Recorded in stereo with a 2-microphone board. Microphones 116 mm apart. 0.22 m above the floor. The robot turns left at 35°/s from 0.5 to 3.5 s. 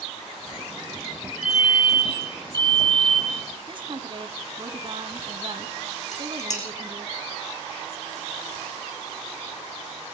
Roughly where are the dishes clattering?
Left.